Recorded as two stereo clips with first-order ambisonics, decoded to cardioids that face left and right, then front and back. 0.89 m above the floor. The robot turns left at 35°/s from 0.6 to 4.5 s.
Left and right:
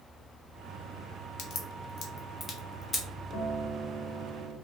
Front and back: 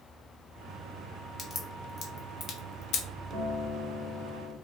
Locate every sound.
1.4 s a crack: 75° left, 0.6 m; by 3.0 s 15° left, 0.6 m
3.3 s a guitar: 145° left, 1.2 m; by 4.5 s 105° left, 1.2 m